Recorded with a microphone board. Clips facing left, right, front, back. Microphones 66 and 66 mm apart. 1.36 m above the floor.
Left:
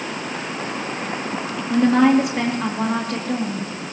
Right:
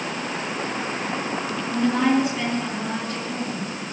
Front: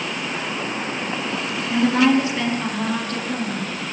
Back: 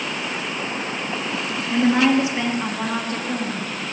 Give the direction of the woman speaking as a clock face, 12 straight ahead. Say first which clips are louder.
Left 6 dB, even; 8 o'clock.